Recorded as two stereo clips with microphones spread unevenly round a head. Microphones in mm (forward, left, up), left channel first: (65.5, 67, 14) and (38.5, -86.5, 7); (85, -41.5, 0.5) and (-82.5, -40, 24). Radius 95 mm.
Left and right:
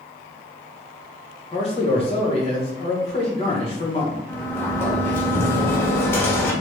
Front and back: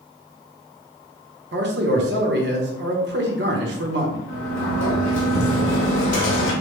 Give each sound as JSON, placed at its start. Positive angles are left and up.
{"t": 1.5, "sound": "a man speaking", "azimuth_deg": 140, "distance_m": 1.0}
{"t": 4.3, "sound": "a sliding door", "azimuth_deg": 5, "distance_m": 1.4}